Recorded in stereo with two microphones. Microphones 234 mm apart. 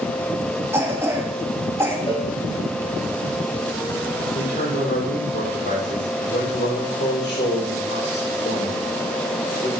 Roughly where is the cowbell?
Left.